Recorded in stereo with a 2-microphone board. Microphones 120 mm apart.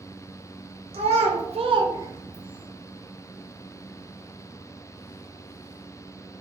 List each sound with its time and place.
0.9 s a child speaking: 65° right (ahead or behind), 0.7 m; by 2.7 s 10° right (ahead or behind), 1.0 m